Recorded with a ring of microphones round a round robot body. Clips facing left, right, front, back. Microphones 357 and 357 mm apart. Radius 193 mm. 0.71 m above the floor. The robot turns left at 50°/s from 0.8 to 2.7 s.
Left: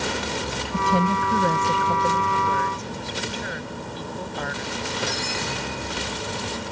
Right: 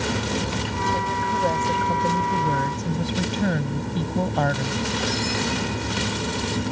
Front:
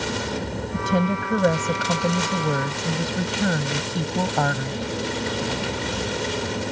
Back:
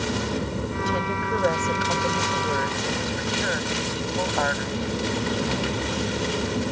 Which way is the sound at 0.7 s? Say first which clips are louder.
Left 4 dB, front 9 dB; 50° left.